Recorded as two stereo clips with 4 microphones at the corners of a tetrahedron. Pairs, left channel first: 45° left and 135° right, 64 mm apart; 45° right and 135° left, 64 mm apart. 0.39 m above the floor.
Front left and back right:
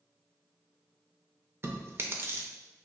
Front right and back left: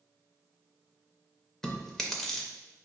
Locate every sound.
1.6 s chewing: 125° right, 0.5 m